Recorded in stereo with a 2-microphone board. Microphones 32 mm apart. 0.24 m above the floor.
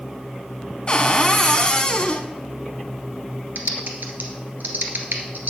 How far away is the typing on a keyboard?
About 1.6 m.